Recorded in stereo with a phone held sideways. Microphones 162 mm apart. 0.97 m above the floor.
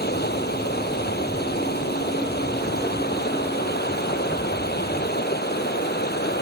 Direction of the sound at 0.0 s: 85° left.